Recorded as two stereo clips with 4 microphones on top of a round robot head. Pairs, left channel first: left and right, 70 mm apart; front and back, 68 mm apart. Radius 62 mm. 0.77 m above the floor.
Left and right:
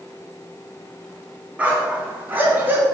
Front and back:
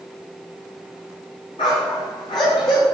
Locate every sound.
1.6 s a dog barking: 20° right, 3 m; by 2.9 s 25° right, 3.5 m